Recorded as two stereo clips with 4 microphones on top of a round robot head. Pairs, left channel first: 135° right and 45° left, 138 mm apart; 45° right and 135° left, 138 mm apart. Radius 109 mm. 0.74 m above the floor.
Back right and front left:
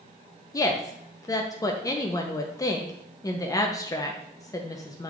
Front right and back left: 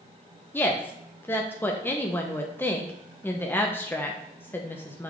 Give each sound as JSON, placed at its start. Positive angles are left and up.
{"t": 0.5, "sound": "a woman speaking", "azimuth_deg": -100, "distance_m": 0.6}